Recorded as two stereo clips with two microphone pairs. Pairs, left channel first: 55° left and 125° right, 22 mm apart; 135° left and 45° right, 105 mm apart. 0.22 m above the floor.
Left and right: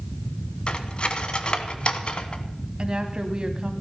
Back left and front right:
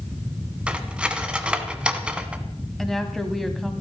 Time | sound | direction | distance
0.7 | cutlery clinking | 30° left | 1.3 m
2.8 | a woman speaking | 140° right | 1.4 m